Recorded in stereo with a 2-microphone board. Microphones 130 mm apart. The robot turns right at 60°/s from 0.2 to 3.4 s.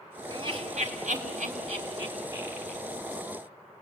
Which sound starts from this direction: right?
Laughter, at 0.3 s.